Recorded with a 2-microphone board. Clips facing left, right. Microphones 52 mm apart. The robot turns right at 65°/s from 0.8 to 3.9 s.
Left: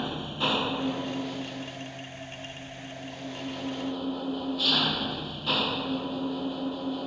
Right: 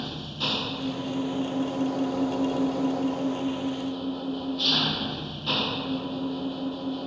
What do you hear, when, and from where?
0.0 s an engine running: 160° left; by 7.1 s straight ahead